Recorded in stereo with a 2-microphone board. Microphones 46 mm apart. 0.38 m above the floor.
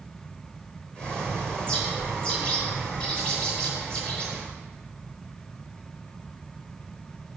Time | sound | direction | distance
0.9 | a bird | 20° left (ahead or behind) | 5.5 m